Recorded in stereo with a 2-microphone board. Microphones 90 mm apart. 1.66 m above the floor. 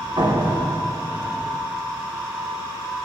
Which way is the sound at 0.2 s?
55° right (ahead or behind).